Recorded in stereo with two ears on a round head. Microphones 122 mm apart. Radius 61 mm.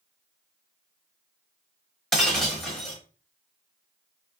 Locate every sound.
2.1 s breaking glass: 5° left (ahead or behind), 0.9 m